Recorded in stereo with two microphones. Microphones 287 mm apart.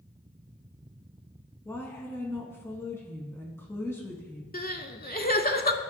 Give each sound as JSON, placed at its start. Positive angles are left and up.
{"t": 1.6, "sound": "a woman speaking", "side_deg": 10, "distance_m": 1.1}
{"t": 4.5, "sound": "crying", "side_deg": 35, "distance_m": 0.5}